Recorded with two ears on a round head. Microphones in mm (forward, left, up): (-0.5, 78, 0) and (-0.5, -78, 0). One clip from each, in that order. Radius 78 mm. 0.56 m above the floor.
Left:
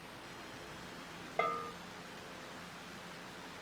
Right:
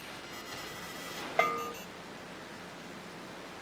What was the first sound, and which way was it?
A bell, 50° right (ahead or behind).